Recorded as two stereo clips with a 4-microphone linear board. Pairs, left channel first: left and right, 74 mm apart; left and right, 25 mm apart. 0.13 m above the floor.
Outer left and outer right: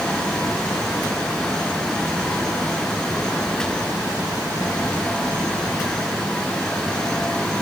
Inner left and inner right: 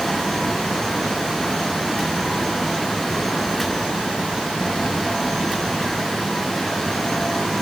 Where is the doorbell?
No doorbell in this recording.